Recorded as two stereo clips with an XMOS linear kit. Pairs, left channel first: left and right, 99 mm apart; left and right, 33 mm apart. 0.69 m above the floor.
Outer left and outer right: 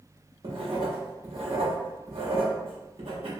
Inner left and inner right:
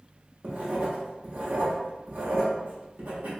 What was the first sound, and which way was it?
Writing, 65° right (ahead or behind).